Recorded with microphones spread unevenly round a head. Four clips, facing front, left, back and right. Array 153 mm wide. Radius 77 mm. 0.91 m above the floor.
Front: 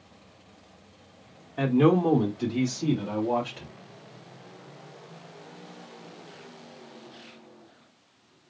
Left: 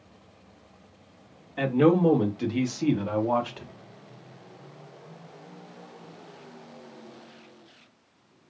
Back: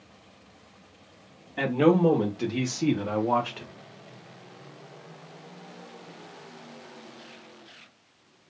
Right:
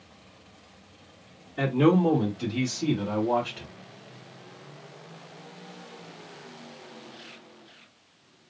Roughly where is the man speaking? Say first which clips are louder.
Left 1 dB, even; behind left.